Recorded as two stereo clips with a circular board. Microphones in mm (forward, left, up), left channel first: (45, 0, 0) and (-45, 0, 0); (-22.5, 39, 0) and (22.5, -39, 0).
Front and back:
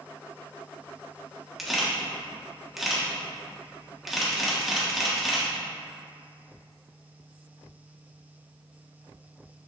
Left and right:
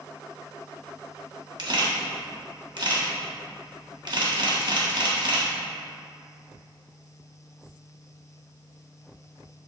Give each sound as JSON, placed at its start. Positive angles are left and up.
{"t": 1.6, "sound": "a camera shutter", "azimuth_deg": -90, "distance_m": 1.5}